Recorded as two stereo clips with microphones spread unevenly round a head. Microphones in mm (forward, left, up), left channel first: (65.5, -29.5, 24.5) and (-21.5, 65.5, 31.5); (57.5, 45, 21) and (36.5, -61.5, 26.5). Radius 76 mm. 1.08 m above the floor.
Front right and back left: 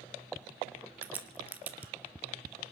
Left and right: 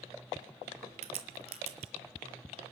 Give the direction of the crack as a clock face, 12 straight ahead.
5 o'clock.